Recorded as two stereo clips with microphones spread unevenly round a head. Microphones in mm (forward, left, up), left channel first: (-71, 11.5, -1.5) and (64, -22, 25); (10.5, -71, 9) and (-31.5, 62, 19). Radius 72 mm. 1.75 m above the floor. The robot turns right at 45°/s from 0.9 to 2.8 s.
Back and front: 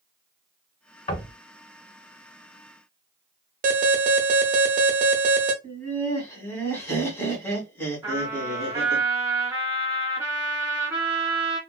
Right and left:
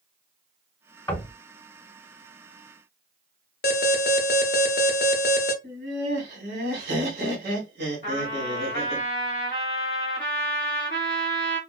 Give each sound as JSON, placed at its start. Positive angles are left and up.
{"t": 1.1, "sound": "knocking", "azimuth_deg": -140, "distance_m": 1.0}
{"t": 3.6, "sound": "an alarm", "azimuth_deg": -45, "distance_m": 0.5}
{"t": 5.6, "sound": "laughter", "azimuth_deg": 90, "distance_m": 1.4}
{"t": 8.0, "sound": "a trumpet", "azimuth_deg": -50, "distance_m": 1.5}